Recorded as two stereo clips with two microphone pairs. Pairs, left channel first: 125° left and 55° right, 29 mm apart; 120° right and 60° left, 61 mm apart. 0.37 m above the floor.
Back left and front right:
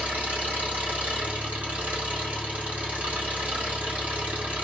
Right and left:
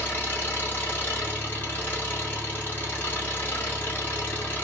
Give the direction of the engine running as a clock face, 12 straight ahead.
2 o'clock.